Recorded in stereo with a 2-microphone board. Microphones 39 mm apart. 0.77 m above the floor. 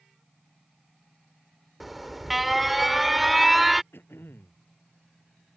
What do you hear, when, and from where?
1.8 s an alarm: 5° right (ahead or behind)
3.9 s throat clearing: 85° left